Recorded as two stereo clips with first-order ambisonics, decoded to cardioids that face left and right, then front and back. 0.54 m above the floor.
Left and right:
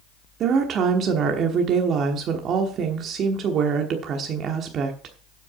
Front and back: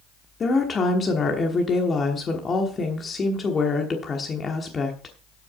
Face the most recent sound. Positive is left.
turn(degrees=-60)